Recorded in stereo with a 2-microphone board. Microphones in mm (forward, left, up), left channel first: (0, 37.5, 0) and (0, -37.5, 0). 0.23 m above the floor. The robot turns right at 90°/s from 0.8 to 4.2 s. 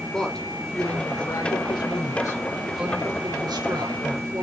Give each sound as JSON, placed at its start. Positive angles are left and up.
{"t": 0.1, "sound": "a woman speaking", "azimuth_deg": 5, "distance_m": 3.0}